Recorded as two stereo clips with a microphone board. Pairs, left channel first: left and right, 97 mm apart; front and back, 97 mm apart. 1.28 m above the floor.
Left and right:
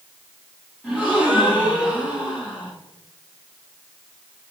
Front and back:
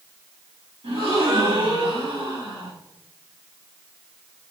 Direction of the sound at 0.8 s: 165° right.